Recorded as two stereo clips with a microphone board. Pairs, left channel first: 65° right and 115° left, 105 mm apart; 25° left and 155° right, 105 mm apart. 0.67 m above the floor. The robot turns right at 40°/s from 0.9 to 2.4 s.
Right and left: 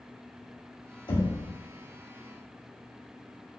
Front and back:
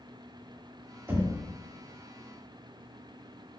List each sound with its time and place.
1.1 s knocking: 95° right, 1.1 m; by 1.4 s 80° right, 1.1 m